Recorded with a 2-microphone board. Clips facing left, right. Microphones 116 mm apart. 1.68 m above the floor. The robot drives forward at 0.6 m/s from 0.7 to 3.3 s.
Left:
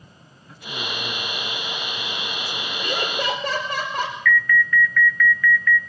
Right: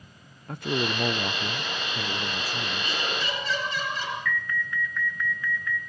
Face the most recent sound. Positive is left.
turn(degrees=-25)  # may be behind; listen again after turning